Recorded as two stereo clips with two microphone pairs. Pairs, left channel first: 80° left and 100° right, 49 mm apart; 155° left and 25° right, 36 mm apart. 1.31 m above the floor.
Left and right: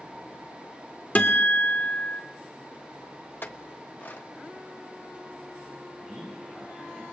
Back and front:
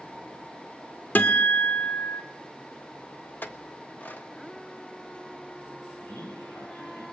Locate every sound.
1.1 s a guitar: 135° left, 1.5 m
3.4 s a clink: 125° left, 1.4 m
6.0 s a man speaking: 170° left, 9 m